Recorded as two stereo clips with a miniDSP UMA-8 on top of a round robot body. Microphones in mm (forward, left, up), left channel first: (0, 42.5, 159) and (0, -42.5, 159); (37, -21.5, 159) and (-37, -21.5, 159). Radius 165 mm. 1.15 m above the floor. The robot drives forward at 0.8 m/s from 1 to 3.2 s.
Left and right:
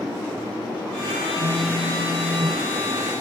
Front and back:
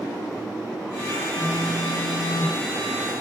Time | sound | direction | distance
1.4 | a phone buzzing | 155° right | 4.5 m